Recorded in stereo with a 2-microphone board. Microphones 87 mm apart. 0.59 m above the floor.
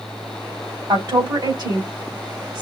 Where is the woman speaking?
55° right (ahead or behind), 3.5 m.